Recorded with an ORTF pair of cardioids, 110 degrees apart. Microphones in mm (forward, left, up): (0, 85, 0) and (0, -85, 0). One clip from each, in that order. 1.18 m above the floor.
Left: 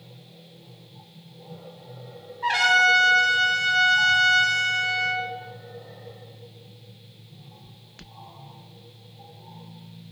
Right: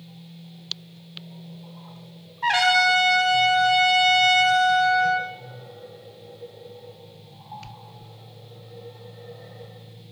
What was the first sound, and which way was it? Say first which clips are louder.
A trumpet: even; 20° right.